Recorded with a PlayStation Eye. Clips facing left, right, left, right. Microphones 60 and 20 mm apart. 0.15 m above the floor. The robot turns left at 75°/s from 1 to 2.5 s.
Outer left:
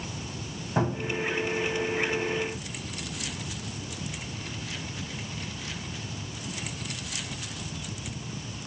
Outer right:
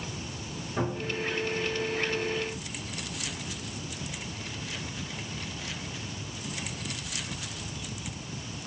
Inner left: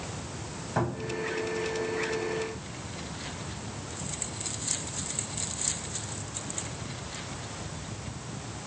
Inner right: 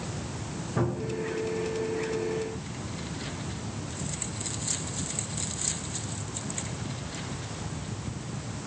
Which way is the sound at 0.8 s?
80° left.